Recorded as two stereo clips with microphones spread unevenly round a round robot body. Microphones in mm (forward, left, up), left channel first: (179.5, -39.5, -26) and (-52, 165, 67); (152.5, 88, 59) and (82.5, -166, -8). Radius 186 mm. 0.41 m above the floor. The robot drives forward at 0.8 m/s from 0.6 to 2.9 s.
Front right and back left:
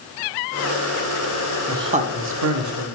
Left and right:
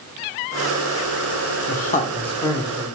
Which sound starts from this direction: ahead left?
A man speaking, at 1.7 s.